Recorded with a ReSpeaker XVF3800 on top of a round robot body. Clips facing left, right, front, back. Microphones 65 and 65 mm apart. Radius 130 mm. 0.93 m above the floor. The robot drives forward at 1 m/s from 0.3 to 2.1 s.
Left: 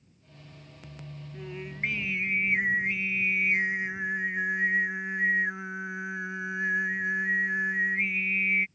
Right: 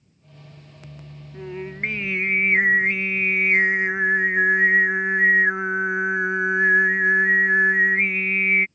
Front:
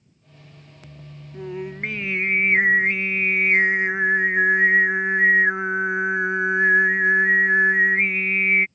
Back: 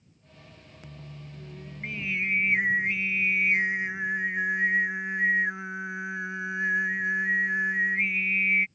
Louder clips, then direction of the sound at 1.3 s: Right 7 dB, front 16 dB; 20° right.